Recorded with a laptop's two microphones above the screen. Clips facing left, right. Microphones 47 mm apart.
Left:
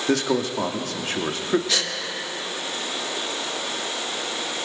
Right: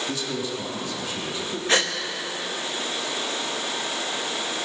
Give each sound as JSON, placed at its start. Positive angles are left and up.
{"t": 0.1, "sound": "a man speaking", "side_deg": 65, "distance_m": 1.9}
{"t": 1.7, "sound": "a gasp", "side_deg": -40, "distance_m": 1.1}